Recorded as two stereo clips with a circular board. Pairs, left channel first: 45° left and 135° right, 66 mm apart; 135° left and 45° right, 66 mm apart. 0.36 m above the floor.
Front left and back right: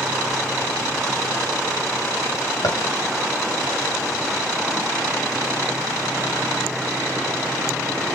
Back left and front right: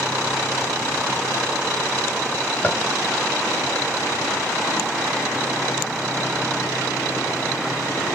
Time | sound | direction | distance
2.6 | tapping | 70° left | 0.7 m